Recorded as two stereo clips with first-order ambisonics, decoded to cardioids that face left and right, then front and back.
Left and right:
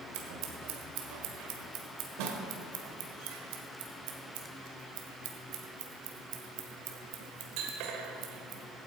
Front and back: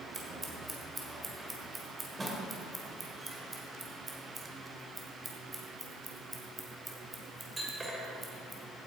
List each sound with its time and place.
0.1 s scissors: 100° right, 1.6 m